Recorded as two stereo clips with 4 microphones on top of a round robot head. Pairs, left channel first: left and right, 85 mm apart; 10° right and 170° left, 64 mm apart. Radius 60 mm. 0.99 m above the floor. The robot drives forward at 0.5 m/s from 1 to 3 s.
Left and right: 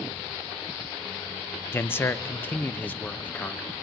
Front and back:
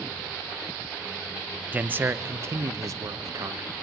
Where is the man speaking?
125° left, 0.8 m; by 3.7 s 160° left, 1.2 m.